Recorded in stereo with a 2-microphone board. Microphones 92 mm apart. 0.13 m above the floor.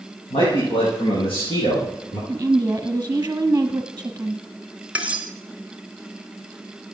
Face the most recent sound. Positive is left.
turn(degrees=-15)  # may be behind; listen again after turning